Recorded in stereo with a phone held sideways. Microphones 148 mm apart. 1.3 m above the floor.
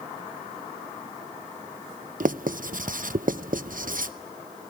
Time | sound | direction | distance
2.2 | writing | 65° right (ahead or behind) | 0.8 m